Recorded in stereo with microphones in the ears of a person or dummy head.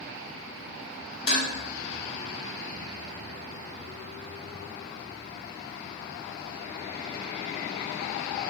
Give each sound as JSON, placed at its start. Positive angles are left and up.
{"t": 1.3, "sound": "dishes clattering", "side_deg": 55, "distance_m": 1.2}